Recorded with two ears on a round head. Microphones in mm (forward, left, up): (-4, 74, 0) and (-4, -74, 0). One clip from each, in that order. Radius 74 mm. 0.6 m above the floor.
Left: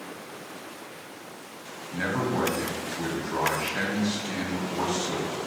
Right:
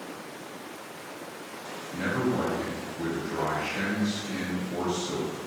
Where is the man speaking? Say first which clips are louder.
Left 1 dB; 35° left (ahead or behind), 0.9 m.